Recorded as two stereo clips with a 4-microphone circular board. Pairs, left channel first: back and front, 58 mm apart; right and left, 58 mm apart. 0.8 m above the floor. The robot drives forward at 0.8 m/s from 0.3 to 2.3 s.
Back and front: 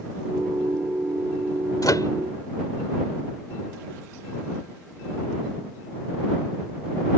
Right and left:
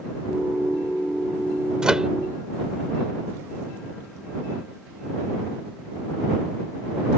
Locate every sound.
1.8 s a microwave: 165° left; by 2.1 s 170° left